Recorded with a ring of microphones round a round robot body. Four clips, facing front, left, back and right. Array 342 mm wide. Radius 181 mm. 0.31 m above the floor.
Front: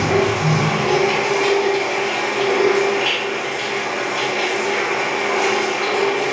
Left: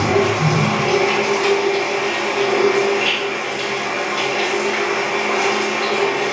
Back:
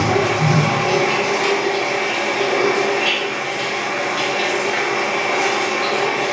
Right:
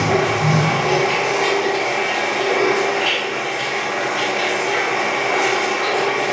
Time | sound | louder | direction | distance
0.0 | running water | left 1 dB, even | 110° left | 1.4 m